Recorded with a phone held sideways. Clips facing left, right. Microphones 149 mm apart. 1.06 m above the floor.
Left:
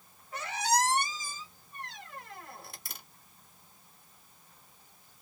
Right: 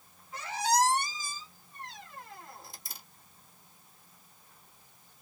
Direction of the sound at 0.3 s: 70° left (ahead or behind).